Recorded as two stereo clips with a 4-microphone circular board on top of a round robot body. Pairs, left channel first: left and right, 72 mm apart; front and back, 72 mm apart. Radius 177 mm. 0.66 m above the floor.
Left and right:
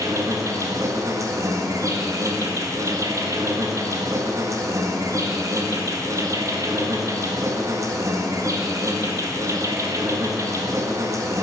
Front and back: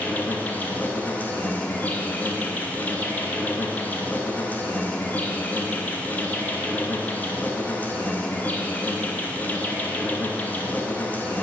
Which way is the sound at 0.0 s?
65° right.